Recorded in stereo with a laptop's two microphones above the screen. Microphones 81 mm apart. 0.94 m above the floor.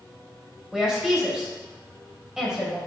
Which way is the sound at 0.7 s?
10° right (ahead or behind).